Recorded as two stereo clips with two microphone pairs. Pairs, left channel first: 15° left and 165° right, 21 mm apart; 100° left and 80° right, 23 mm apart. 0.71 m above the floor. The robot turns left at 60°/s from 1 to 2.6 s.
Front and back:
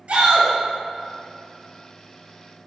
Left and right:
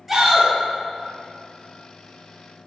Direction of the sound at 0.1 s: 155° right.